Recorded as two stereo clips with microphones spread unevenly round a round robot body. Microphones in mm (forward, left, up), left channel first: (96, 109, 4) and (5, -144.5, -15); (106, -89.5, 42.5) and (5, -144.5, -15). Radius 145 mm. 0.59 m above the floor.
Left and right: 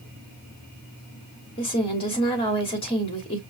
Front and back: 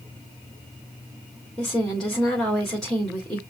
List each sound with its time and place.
1.6 s a woman speaking: 140° left, 1.6 m